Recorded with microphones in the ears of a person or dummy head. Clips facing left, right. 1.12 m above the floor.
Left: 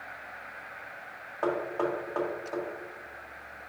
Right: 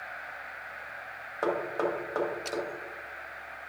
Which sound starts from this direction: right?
Knocking, at 1.4 s.